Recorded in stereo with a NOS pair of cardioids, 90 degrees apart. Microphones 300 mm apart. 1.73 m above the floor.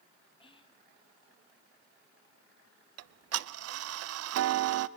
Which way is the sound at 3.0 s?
55° right.